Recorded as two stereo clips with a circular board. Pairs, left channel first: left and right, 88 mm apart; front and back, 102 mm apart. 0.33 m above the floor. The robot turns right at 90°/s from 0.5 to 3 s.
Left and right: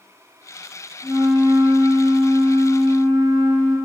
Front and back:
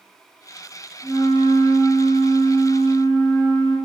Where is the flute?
125° right, 0.6 m; by 3.8 s 50° left, 0.6 m.